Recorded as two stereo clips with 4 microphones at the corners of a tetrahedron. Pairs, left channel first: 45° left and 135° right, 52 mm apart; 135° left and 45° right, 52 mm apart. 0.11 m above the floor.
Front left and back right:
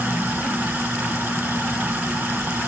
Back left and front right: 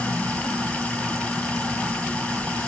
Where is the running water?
170° right, 1.2 m.